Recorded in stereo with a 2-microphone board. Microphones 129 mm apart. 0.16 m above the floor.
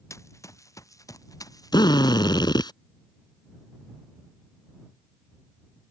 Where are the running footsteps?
20° left (ahead or behind); by 2.7 s 30° left (ahead or behind).